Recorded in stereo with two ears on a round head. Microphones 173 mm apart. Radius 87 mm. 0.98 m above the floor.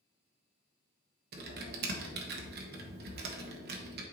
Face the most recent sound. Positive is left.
turn(degrees=-55)  # may be behind; listen again after turning